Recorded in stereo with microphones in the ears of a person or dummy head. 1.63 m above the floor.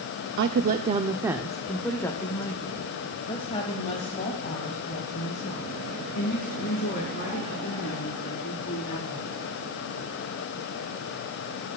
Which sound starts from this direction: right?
A woman speaking, at 0.4 s.